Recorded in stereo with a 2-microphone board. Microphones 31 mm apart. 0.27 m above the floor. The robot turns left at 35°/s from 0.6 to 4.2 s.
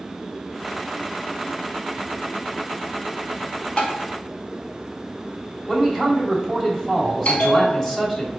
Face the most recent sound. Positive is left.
turn(degrees=55)  # may be behind; listen again after turning